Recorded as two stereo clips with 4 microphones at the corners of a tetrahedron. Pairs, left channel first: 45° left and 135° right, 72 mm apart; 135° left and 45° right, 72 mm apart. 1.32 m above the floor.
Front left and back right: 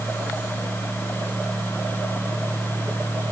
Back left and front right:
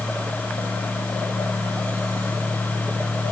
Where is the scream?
I don't hear a scream.